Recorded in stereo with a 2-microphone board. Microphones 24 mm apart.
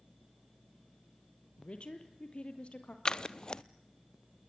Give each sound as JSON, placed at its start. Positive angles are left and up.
{"t": 1.6, "sound": "a woman speaking", "side_deg": 50, "distance_m": 3.0}
{"t": 3.0, "sound": "scissors", "side_deg": 35, "distance_m": 0.6}